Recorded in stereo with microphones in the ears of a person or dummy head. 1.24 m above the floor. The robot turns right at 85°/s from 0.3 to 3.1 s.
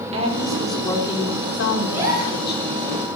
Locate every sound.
0.1 s a woman speaking: 35° right, 3.5 m; by 2.8 s straight behind, 3.5 m
1.9 s a gasp: straight behind, 4 m; by 2.4 s 135° right, 4 m